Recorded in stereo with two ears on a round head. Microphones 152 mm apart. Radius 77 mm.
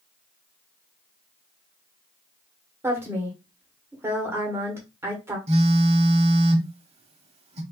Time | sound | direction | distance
2.8 | a woman speaking | 15° right (ahead or behind) | 1.3 m
5.5 | a phone buzzing | 40° right (ahead or behind) | 0.8 m